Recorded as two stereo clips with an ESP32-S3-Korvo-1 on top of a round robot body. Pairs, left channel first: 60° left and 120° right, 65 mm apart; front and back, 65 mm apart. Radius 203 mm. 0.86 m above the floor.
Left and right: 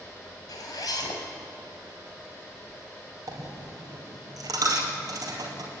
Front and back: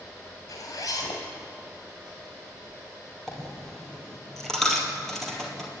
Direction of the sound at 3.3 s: 85° right.